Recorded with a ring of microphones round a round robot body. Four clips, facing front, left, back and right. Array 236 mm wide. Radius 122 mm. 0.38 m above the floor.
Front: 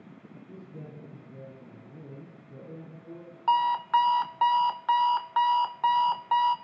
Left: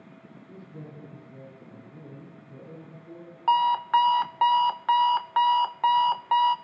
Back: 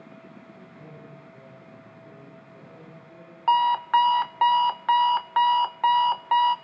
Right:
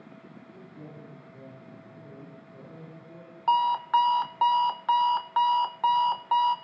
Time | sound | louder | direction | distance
0.5 | a man speaking | left 3 dB, front 1 dB | 40° left | 9 m
3.5 | an alarm clock | left 2 dB, back 3 dB | 155° left | 0.6 m